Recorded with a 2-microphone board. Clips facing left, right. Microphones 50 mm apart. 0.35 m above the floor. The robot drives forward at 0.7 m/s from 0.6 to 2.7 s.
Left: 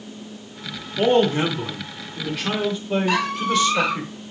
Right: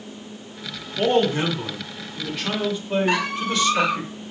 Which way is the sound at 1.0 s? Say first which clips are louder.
Left 2 dB; centre (ahead or behind).